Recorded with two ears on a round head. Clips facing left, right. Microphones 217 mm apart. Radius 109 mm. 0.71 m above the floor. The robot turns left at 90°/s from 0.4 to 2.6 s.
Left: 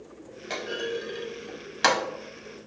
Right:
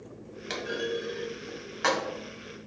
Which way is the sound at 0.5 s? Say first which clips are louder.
Even; 25° right (ahead or behind).